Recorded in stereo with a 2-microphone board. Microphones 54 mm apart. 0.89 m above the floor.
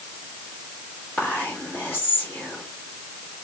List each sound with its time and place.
1.2 s whispering: 50° left (ahead or behind), 1.4 m